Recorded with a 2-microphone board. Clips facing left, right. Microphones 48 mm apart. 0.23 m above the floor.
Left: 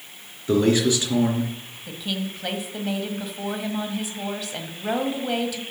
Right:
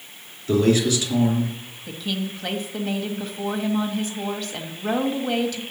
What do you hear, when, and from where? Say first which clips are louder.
0.5 s a man speaking: even; 25° left (ahead or behind), 3 m; by 1.5 s 35° left (ahead or behind), 3 m
1.9 s a woman speaking: right 1 dB; 5° left (ahead or behind), 1.3 m